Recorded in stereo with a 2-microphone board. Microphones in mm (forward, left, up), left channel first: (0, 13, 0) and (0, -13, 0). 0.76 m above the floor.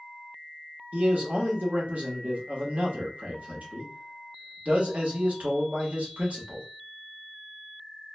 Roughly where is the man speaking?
Right.